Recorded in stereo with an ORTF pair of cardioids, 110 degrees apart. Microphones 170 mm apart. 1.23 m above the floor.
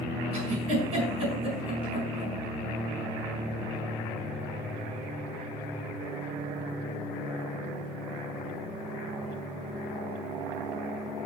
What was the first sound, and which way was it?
A giggle, 35° right.